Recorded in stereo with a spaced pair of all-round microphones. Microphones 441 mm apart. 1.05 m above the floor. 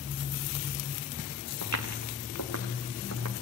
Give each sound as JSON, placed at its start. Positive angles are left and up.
{"t": 1.6, "sound": "footsteps", "side_deg": 40, "distance_m": 3.0}